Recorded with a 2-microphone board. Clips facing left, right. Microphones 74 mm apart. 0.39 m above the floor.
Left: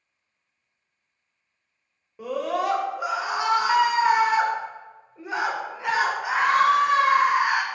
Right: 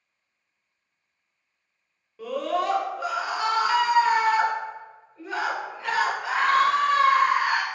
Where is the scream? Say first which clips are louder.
Even; 15° left (ahead or behind), 0.9 m.